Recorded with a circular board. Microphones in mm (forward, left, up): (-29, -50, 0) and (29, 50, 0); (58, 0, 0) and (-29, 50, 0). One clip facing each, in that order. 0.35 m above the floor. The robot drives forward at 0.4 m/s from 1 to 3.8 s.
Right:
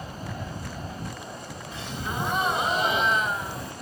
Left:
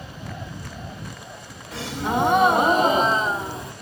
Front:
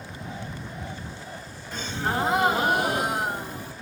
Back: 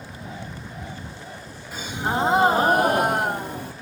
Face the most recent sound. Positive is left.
turn(degrees=130)